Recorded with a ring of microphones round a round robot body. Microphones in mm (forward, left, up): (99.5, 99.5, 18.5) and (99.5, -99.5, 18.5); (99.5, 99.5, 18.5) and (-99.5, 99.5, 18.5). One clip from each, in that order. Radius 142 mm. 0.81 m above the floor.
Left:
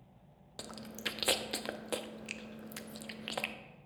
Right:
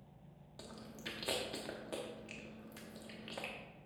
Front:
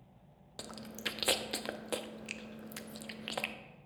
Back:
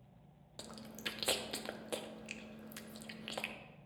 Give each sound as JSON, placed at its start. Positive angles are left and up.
{"t": 0.6, "sound": "chewing", "azimuth_deg": 70, "distance_m": 0.6}